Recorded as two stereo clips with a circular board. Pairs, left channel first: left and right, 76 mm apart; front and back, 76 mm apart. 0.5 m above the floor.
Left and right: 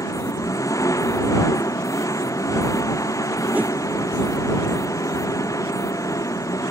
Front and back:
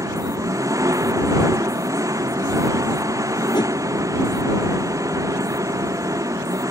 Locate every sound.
0.0 s an engine running: 135° left
3.5 s a whoosh: 20° right